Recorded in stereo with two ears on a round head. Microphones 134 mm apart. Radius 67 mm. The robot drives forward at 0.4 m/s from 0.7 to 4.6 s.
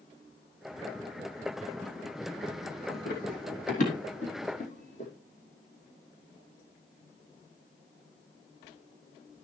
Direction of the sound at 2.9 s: 60° left (ahead or behind).